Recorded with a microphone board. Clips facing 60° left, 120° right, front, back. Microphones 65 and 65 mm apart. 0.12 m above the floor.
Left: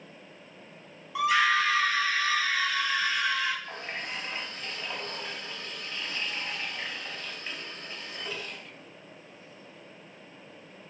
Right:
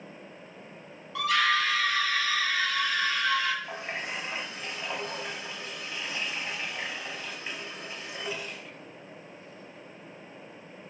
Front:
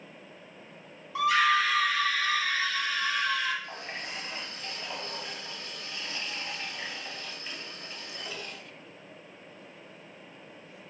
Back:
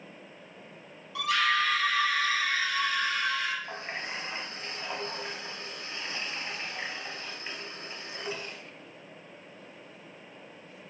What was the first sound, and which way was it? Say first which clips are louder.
A scream: left 2 dB, front 3 dB; 5° left.